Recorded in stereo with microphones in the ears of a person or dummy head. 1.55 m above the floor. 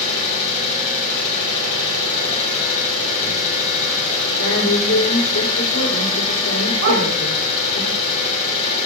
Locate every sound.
0.0 s an engine running: 45° left (ahead or behind), 3.5 m
4.4 s a woman speaking: 80° left, 4.5 m
6.8 s a dog barking: 80° right, 5 m